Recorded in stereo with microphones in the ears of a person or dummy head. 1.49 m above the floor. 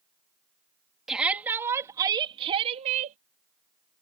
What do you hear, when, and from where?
1.1 s a shout: centre (ahead or behind); by 3.2 s 40° right (ahead or behind)